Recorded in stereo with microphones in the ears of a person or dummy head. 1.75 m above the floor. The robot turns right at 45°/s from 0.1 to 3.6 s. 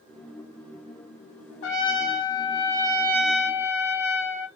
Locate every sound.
1.6 s a trumpet: 110° left, 0.9 m; by 4.5 s 165° right, 0.9 m